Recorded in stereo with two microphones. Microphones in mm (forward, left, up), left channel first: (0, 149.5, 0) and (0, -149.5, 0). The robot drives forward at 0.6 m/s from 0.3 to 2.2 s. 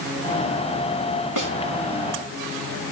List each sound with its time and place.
1.4 s a snare drum: 70° right (ahead or behind), 3 m; by 1.6 s 75° right (ahead or behind), 3 m